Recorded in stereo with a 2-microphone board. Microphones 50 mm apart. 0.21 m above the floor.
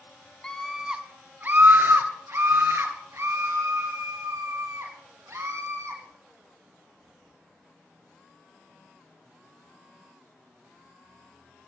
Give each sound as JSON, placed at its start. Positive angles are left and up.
{"t": 0.4, "sound": "a scream", "side_deg": 15, "distance_m": 1.1}